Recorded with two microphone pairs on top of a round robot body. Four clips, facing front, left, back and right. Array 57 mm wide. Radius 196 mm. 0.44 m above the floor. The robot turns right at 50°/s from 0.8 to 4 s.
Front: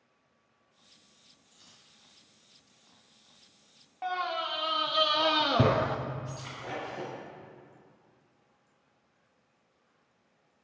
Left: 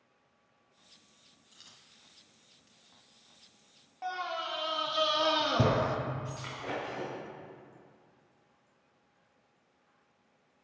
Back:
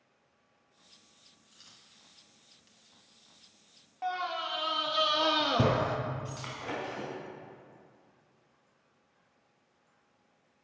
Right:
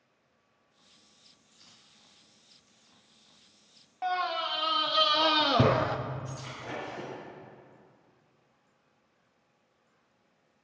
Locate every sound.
1.5 s a dropped coin: 100° left, 1.9 m; by 2.8 s 165° left, 1.9 m
4.0 s a scream: 85° right, 0.7 m
6.2 s breaking glass: 160° left, 3.5 m